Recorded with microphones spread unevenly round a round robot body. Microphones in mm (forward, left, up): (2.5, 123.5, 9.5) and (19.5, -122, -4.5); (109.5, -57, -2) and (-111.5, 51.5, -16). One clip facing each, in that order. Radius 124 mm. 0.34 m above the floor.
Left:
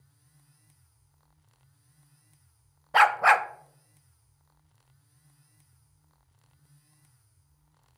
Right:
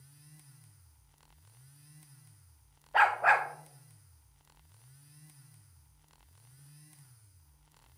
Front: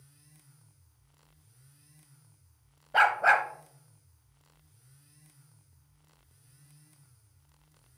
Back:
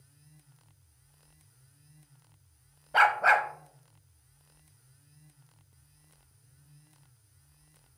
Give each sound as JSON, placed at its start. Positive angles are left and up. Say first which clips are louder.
{"t": 2.9, "sound": "a dog barking", "louder": "left 5 dB, even", "azimuth_deg": 70, "distance_m": 0.5}